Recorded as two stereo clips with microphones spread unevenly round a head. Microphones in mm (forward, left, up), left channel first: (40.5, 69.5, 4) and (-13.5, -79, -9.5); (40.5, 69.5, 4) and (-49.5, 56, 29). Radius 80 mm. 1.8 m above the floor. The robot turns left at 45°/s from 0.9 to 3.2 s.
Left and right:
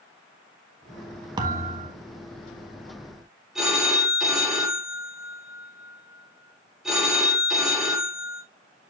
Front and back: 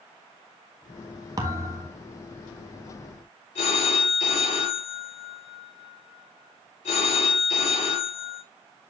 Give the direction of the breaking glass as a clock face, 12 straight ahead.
No breaking glass in this recording.